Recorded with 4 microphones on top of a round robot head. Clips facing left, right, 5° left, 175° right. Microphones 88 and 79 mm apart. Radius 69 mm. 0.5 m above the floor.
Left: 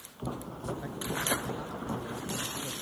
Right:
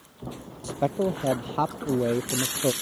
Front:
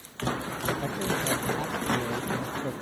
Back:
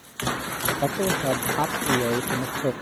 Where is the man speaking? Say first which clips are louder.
Right 12 dB, back 6 dB; 120° right.